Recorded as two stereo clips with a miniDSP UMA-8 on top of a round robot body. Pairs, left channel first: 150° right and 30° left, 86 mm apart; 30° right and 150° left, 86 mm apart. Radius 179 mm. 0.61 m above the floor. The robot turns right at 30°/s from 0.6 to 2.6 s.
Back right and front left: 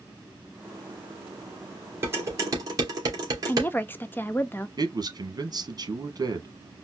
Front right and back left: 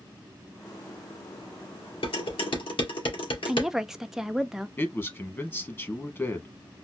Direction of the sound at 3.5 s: 130° right.